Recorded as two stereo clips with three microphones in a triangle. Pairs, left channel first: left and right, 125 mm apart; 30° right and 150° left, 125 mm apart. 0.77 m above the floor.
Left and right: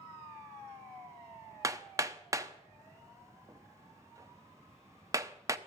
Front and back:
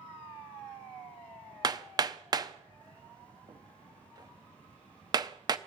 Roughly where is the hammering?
Behind right.